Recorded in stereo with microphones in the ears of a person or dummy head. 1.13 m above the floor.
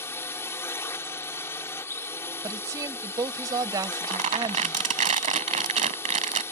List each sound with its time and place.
0.0 s a drone: 10° left (ahead or behind)
2.4 s a woman speaking: 20° right (ahead or behind)
3.8 s crumpling: 35° right (ahead or behind)